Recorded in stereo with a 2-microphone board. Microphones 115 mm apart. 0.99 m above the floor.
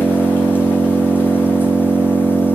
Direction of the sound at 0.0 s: 20° left (ahead or behind).